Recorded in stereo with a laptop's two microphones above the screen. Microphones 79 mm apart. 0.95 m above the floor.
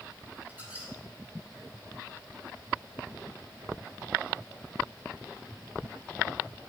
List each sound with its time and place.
0.5 s a squeak: 20° right (ahead or behind), 6 m